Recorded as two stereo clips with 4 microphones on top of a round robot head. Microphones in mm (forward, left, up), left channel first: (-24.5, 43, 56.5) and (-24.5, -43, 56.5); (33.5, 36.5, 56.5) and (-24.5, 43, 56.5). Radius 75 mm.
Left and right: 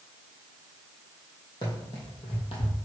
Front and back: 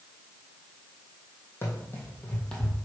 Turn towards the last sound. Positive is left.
turn(degrees=75)